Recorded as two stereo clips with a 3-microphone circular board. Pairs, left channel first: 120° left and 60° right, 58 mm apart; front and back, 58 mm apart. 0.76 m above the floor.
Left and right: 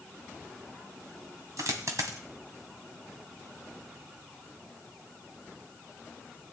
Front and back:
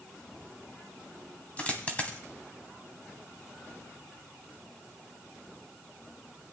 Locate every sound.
1.6 s a dropped coin: 65° right, 1.6 m